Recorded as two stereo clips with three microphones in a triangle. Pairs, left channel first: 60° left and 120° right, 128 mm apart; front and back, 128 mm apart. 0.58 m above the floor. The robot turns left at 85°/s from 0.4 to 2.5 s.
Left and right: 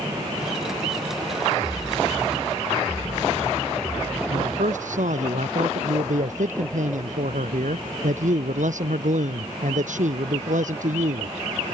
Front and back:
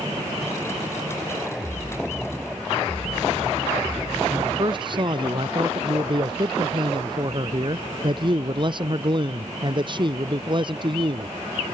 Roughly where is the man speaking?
Behind right.